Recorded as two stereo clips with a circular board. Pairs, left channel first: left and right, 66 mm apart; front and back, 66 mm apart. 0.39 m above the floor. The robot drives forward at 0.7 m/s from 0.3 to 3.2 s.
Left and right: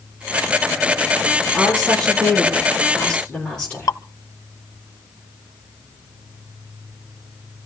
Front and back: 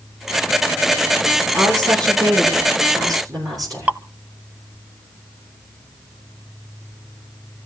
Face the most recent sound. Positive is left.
turn(degrees=115)